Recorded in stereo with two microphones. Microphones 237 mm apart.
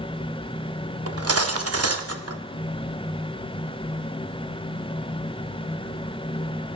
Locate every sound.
1.1 s cutlery clinking: 85° right, 0.7 m